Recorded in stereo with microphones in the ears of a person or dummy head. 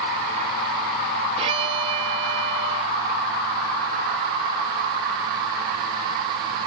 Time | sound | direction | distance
1.4 | a violin | 25° right (ahead or behind) | ?